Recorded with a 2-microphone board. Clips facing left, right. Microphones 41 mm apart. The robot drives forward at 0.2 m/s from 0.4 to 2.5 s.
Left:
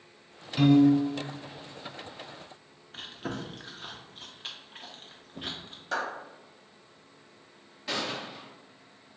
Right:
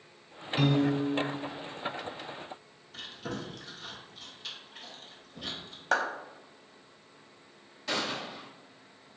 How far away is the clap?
About 0.6 m.